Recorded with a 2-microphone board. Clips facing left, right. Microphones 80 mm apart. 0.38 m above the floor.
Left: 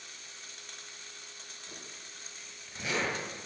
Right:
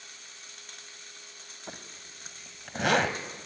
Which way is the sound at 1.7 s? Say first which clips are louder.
Right 6 dB; 60° right (ahead or behind).